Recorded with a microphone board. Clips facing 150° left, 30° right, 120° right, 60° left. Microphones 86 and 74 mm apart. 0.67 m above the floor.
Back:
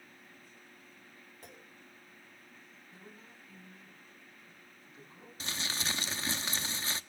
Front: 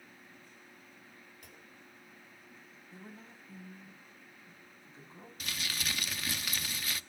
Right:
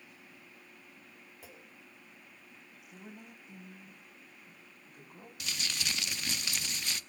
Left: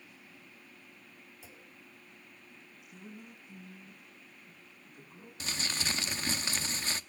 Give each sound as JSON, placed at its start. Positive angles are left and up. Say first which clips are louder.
{"t": 1.4, "sound": "a clunk", "louder": "back 2 dB, right 3 dB", "azimuth_deg": -155, "distance_m": 3.0}
{"t": 2.9, "sound": "a woman speaking", "louder": "front 4 dB, left 1 dB", "azimuth_deg": -90, "distance_m": 4.0}
{"t": 5.4, "sound": "crumpling", "louder": "back 1 dB, left 2 dB", "azimuth_deg": 100, "distance_m": 0.7}